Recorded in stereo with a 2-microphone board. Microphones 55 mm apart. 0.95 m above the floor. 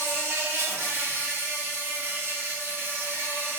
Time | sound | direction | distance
0.0 | an insect | 45° right (ahead or behind) | 0.8 m